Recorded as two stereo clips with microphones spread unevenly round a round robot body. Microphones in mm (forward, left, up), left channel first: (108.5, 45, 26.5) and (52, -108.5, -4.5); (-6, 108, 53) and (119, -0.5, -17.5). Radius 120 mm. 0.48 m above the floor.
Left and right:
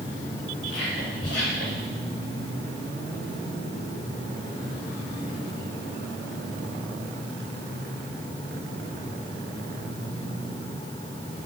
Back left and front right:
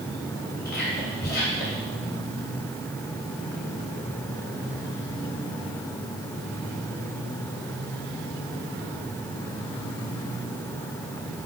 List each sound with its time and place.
0.7 s whispering: 100° left, 2.0 m